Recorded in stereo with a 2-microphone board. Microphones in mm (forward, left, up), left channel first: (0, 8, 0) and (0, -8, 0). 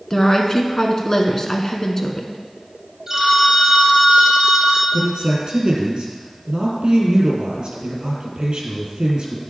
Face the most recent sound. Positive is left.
turn(degrees=-65)  # may be behind; listen again after turning